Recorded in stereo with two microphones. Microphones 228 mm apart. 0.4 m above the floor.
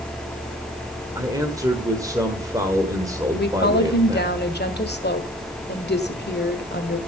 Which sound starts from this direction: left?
A woman speaking, at 3.4 s.